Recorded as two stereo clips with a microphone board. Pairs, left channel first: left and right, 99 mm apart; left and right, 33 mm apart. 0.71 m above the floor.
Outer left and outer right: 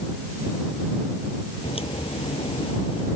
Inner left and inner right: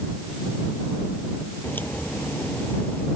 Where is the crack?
80° left.